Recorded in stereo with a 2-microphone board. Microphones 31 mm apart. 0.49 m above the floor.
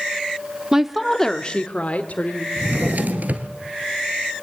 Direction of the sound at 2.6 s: 60° right (ahead or behind).